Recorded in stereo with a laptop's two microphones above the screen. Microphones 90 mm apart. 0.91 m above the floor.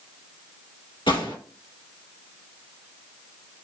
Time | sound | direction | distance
1.1 | a gunshot | 65° left (ahead or behind) | 1.8 m